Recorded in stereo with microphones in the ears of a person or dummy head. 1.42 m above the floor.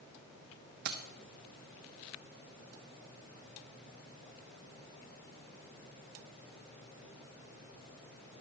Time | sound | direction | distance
0.8 | keys jangling | 55° right (ahead or behind) | 1.1 m